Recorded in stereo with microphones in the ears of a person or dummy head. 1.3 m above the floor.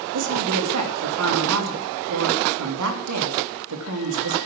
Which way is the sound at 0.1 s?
60° right (ahead or behind).